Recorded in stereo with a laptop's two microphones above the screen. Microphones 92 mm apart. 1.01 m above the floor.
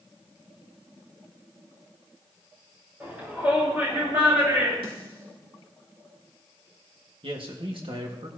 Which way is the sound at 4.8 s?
70° right (ahead or behind).